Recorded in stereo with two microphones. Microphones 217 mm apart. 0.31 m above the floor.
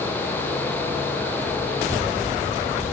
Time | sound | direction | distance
1.7 | a child speaking | 25° left (ahead or behind) | 9 m